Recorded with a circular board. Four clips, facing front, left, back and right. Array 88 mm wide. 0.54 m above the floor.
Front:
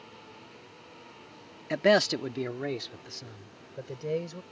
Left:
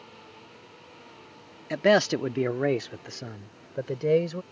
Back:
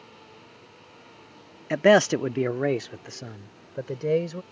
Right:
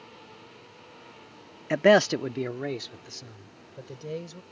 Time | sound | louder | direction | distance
1.7 | a man speaking | right 2 dB, back 5 dB | 125° right | ?